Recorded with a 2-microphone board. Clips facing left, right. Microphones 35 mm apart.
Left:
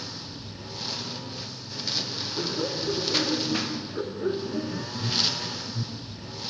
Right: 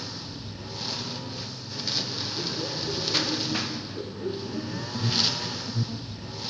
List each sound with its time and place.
0.0 s a lawn mower: centre (ahead or behind)
2.4 s laughter: 50° left (ahead or behind)
4.9 s an alarm: 30° right (ahead or behind)